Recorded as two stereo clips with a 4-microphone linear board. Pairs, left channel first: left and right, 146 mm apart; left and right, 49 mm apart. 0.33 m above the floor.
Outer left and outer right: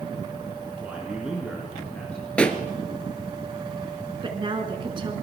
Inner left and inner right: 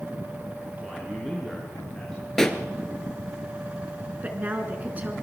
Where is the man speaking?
10° right (ahead or behind), 5 m; by 2.2 s 10° left (ahead or behind), 5.5 m.